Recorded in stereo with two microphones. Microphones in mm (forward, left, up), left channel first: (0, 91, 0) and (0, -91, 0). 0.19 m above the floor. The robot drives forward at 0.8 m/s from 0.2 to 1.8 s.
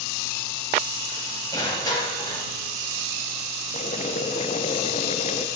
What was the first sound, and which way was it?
Crushing, 20° left (ahead or behind).